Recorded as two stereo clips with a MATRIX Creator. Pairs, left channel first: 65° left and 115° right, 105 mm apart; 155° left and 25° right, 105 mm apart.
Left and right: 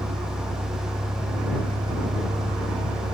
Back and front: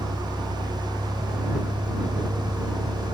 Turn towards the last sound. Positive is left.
turn(degrees=-75)